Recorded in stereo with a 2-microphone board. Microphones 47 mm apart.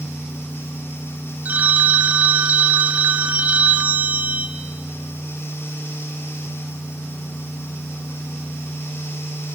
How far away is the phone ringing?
About 1.1 m.